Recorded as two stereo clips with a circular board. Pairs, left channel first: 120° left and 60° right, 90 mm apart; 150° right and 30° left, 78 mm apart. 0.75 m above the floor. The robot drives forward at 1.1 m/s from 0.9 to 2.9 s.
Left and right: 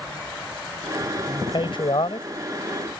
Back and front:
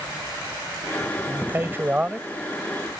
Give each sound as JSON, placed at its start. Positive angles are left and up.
{"t": 1.3, "sound": "a man speaking", "azimuth_deg": 85}